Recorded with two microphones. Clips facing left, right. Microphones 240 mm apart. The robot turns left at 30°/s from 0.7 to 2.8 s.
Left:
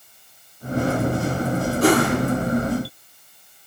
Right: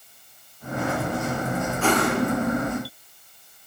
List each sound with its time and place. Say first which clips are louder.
1.8 s a whoosh: left 5 dB; 40° left (ahead or behind), 5 m; by 2.1 s 30° left (ahead or behind), 5 m